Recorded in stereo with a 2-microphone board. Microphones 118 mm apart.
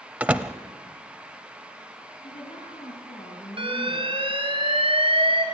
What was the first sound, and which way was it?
A door slam, 10° right (ahead or behind).